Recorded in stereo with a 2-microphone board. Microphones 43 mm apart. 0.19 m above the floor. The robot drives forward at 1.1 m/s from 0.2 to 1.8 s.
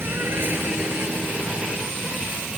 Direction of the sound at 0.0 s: 65° right (ahead or behind).